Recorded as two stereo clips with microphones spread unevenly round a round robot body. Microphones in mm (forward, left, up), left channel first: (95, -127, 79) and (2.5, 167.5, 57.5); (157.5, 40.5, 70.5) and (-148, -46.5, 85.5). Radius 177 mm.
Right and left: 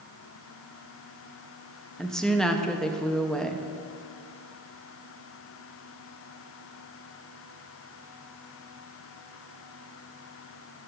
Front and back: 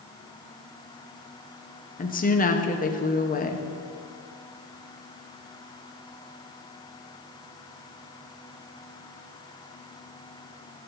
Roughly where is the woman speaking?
Ahead.